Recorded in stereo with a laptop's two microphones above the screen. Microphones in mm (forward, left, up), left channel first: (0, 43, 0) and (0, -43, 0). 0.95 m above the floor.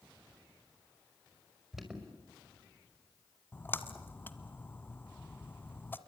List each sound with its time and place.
1.7 s an alarm: 5° right (ahead or behind), 5.5 m
3.5 s a splash: 25° left (ahead or behind), 1.6 m